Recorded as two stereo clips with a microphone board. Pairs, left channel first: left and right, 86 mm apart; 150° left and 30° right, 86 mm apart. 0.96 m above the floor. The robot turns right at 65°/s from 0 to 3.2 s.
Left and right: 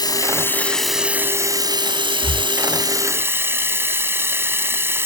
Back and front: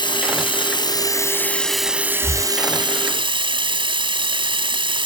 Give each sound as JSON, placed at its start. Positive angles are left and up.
{"t": 0.0, "sound": "running water", "azimuth_deg": 125}
{"t": 2.2, "sound": "breathing", "azimuth_deg": 120}